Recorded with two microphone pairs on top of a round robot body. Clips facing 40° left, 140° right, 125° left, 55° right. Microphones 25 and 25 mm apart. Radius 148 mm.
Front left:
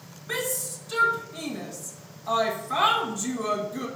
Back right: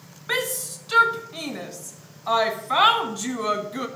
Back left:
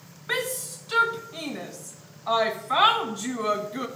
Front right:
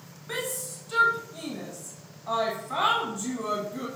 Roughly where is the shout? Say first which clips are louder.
Back right 4 dB, back left 5 dB; behind.